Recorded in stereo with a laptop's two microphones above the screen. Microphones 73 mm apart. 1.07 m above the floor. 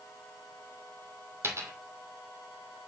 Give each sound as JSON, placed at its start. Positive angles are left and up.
{"t": 1.4, "sound": "a dropped coin", "side_deg": -40, "distance_m": 2.0}